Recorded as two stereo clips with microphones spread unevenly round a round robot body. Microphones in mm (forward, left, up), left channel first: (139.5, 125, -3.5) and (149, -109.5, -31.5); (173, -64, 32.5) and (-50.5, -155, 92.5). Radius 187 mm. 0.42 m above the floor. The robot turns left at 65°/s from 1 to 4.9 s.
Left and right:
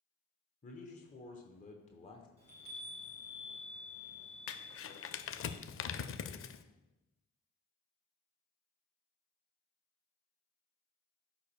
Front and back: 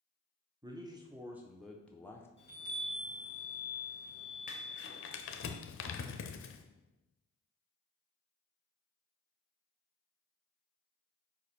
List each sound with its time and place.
0.6 s a man speaking: 115° left, 0.8 m; by 2.3 s 35° left, 0.8 m
2.4 s a chime: 20° right, 3.5 m; by 5.5 s 175° left, 3.5 m
4.5 s crumpling: 80° left, 0.6 m; by 6.7 s 50° left, 0.6 m